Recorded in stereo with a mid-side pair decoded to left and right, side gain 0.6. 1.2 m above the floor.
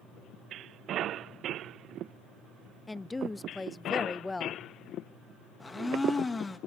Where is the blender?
20° left, 1.9 m.